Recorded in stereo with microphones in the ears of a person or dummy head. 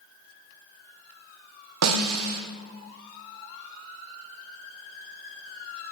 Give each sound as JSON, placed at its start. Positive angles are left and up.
{"t": 1.8, "sound": "a snare drum", "side_deg": -80, "distance_m": 1.0}